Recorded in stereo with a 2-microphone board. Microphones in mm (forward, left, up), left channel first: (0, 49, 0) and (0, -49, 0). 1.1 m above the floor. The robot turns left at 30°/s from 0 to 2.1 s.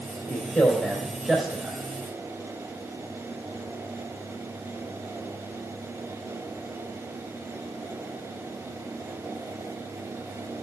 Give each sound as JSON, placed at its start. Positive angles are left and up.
{"t": 0.3, "sound": "a man speaking", "side_deg": 25, "distance_m": 3.5}